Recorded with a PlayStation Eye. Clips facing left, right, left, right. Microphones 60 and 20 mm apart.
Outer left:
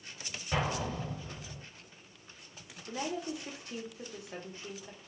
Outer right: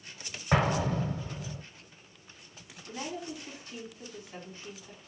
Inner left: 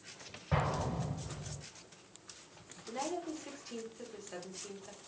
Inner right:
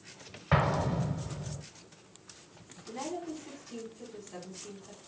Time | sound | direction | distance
0.5 | an explosion | 65° right (ahead or behind) | 0.6 m
2.9 | a woman speaking | 65° left (ahead or behind) | 1.4 m